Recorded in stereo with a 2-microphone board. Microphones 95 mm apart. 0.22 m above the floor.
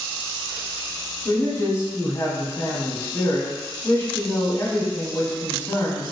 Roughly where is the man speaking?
Left.